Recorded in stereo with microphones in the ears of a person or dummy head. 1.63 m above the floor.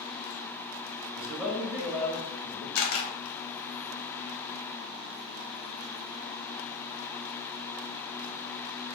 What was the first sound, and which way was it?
A man speaking, 10° right (ahead or behind).